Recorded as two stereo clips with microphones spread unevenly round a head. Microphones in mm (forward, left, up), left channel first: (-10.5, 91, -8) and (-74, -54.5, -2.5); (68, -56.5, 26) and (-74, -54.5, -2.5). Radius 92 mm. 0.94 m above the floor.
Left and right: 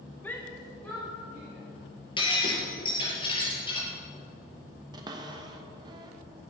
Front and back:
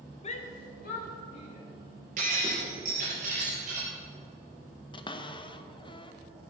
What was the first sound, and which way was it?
A shout, straight ahead.